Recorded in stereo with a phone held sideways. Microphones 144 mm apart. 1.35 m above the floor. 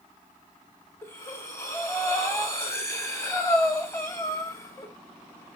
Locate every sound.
1.0 s breathing: 20° left (ahead or behind), 0.6 m